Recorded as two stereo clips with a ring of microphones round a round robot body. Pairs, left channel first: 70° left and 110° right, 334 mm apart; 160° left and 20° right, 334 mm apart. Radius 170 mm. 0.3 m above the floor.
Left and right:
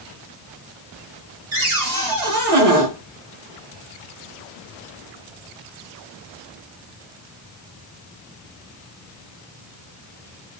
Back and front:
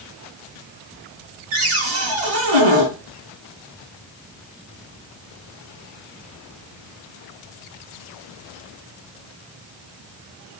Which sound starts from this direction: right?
A cupboard door, at 1.5 s.